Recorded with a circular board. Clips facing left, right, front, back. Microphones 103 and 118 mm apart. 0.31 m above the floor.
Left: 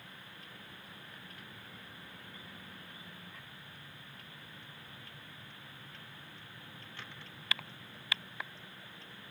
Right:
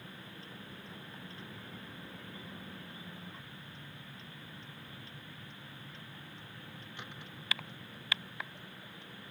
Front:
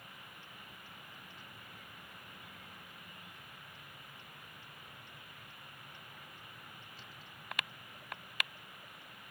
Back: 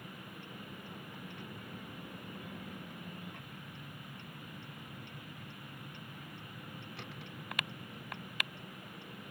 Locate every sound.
0.0 s a vehicle: 150° right; by 9.3 s 165° right